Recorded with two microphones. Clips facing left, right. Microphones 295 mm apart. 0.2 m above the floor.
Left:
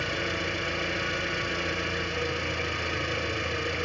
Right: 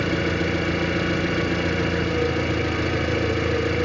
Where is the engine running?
70° right (ahead or behind), 1.2 m.